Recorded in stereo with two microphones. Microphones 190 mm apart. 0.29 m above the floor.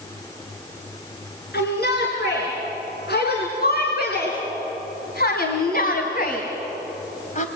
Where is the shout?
65° left (ahead or behind), 4.5 m; by 7.5 s 45° left (ahead or behind), 1.9 m.